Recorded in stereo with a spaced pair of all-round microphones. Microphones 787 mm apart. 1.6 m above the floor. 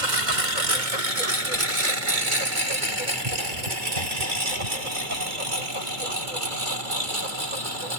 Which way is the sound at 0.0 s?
70° right (ahead or behind).